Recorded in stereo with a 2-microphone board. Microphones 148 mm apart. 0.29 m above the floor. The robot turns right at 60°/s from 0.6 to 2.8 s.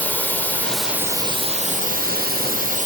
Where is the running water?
170° left, 2 m; by 2.9 s 60° right, 2 m.